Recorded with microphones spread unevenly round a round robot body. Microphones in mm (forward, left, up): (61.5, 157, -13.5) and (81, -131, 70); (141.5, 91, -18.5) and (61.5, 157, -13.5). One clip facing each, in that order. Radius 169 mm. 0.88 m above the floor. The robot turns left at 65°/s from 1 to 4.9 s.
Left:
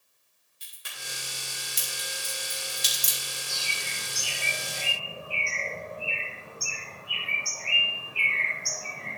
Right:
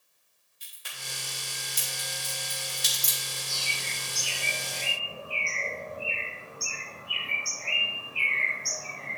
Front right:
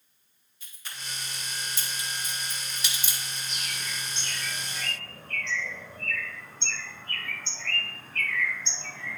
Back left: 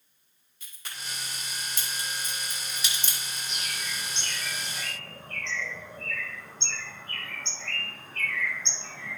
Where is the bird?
165° left, 4.5 m; by 9.2 s 75° left, 4.5 m.